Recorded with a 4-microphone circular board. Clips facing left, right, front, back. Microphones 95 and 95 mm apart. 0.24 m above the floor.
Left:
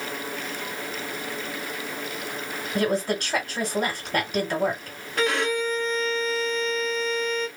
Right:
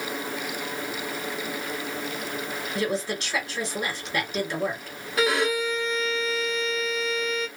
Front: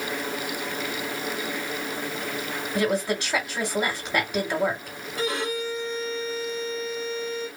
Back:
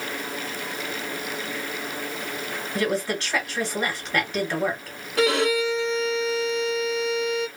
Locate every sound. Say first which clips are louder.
2.8 s a woman speaking: left 4 dB, front 1 dB; 75° left, 1.9 m
5.2 s a violin: right 1 dB, back 7 dB; 175° right, 0.8 m